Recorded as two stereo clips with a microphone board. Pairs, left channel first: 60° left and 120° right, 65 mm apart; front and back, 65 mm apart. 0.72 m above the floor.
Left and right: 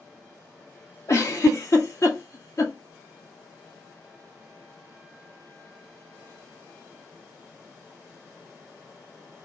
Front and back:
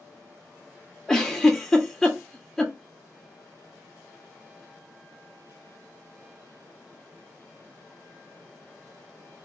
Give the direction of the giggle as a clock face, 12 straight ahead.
9 o'clock.